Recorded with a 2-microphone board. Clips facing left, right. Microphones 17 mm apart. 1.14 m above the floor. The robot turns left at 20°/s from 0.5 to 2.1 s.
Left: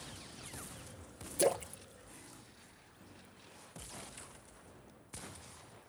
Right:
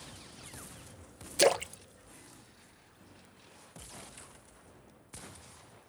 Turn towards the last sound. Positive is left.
turn(degrees=-50)  # may be behind; listen again after turning